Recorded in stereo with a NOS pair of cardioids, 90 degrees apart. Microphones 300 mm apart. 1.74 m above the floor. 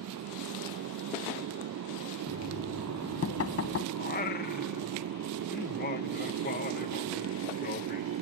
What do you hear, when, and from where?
0.0 s a motorcycle: 70° right
2.3 s knocking: 50° left
4.0 s singing: 30° left